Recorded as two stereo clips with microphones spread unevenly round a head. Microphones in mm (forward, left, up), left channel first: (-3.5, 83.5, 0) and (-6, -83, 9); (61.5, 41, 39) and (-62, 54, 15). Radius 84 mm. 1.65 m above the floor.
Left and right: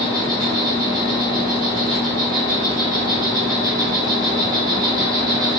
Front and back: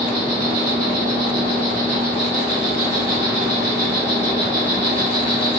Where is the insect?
150° right, 1.2 m.